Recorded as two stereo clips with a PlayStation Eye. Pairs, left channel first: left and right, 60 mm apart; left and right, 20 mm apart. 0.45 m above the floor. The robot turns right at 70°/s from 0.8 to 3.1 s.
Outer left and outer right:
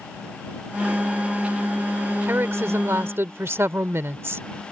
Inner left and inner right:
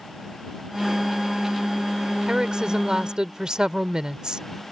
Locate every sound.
2.3 s a woman speaking: 130° right; by 4.7 s 70° right